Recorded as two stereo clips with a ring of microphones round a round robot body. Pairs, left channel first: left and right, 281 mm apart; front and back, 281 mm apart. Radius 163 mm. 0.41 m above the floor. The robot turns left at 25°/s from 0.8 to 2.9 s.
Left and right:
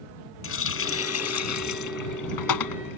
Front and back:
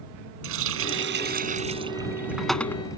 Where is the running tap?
130° left; by 3.0 s 80° left.